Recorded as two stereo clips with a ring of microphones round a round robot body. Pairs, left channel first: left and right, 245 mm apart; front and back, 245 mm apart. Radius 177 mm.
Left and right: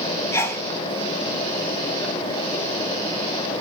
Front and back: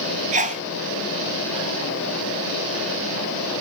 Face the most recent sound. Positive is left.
turn(degrees=160)